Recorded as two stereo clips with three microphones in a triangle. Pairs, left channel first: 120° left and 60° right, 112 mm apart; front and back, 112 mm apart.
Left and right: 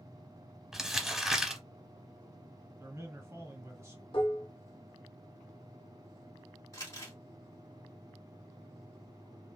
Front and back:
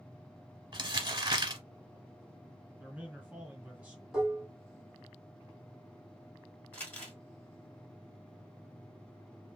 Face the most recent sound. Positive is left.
turn(degrees=70)